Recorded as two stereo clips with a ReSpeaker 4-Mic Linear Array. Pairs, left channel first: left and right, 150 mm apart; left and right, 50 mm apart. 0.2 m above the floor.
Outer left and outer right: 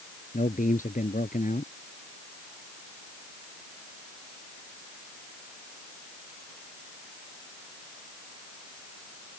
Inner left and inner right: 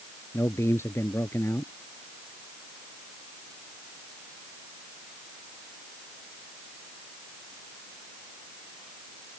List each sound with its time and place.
0.3 s a man speaking: 65° left (ahead or behind)